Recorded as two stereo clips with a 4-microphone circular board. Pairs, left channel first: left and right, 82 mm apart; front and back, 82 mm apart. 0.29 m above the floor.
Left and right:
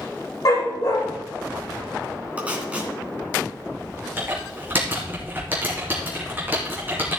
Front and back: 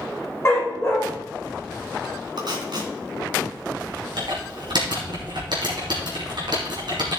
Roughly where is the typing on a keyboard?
Behind right.